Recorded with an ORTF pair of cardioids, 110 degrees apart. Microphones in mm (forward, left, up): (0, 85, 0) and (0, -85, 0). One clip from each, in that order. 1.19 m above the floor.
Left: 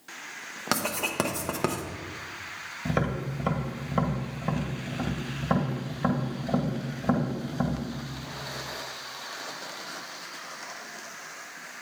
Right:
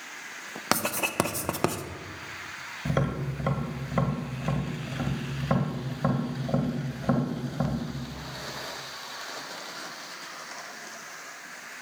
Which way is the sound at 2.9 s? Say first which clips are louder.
Left 1 dB; 10° right.